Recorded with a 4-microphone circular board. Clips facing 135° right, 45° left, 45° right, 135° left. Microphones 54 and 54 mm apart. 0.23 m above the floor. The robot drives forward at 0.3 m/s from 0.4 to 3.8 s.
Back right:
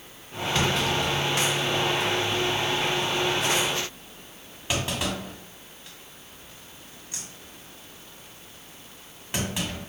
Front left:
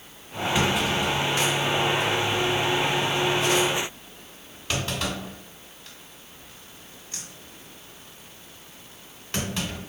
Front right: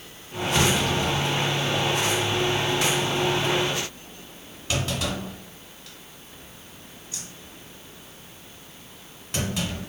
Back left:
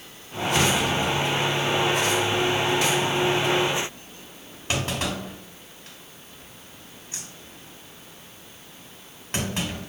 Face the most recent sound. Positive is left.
turn(degrees=160)